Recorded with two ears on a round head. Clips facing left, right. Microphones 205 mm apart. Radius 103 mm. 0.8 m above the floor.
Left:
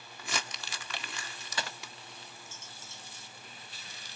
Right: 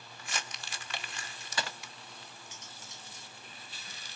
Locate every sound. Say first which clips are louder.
0.2 s crumpling: left 4 dB; 60° left (ahead or behind), 1.5 m
2.5 s cutlery clinking: even; 15° right (ahead or behind), 4 m